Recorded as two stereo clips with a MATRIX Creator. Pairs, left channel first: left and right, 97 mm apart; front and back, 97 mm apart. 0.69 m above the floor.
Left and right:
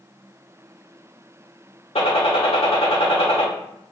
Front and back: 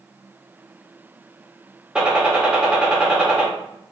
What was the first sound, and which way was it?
A gunshot, 100° left.